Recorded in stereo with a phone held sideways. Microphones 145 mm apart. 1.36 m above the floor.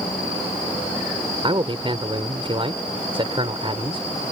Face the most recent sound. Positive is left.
turn(degrees=-40)  # may be behind; listen again after turning